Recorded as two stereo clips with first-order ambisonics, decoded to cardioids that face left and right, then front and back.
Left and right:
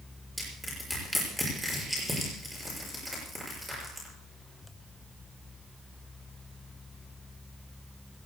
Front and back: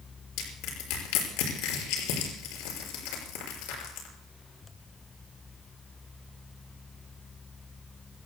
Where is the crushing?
Straight ahead, 6 m.